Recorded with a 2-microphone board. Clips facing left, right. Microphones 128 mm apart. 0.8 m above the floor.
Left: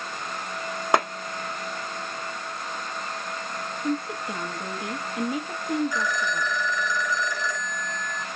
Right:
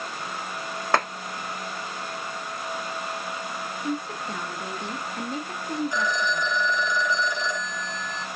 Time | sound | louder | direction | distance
0.9 | a clap | left 2 dB | 15° left (ahead or behind) | 1.0 m
3.8 | a woman speaking | left 3 dB | 10° left (ahead or behind) | 0.5 m
5.9 | a phone ringing | right 1 dB | 25° right (ahead or behind) | 0.5 m